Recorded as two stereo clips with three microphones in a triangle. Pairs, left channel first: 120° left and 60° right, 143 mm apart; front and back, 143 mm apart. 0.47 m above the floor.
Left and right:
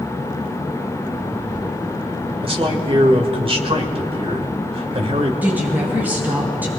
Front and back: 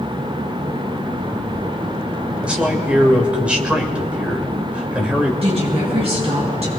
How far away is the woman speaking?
About 4 m.